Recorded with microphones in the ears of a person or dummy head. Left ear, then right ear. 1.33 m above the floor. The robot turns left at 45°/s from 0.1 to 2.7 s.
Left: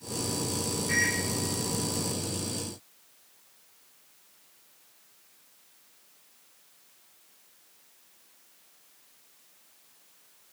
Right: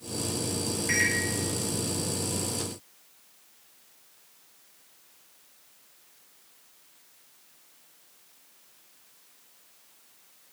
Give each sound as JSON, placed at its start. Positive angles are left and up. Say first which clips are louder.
{"t": 0.9, "sound": "a microwave", "louder": "right 1 dB", "side_deg": -85, "distance_m": 4.0}